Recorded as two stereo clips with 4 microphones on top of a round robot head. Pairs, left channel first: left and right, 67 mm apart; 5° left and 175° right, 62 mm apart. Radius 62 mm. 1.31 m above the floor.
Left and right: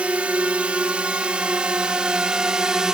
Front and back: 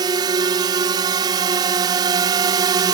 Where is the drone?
165° right; by 2.9 s 170° right.